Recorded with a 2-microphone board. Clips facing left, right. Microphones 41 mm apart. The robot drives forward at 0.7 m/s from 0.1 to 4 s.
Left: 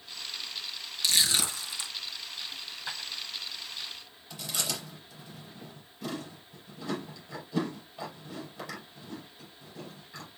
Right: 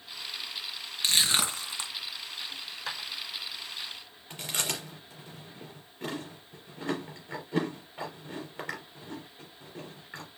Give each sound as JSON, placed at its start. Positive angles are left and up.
{"t": 1.0, "sound": "crushing", "side_deg": -40, "distance_m": 2.5}
{"t": 2.5, "sound": "a dropped coin", "side_deg": -80, "distance_m": 5.5}
{"t": 4.3, "sound": "chewing", "side_deg": -55, "distance_m": 4.0}